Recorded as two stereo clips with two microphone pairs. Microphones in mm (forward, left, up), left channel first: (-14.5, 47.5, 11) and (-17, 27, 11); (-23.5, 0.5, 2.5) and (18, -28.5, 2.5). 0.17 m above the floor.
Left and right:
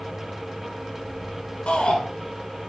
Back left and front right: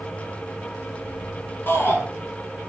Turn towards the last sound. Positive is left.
turn(degrees=95)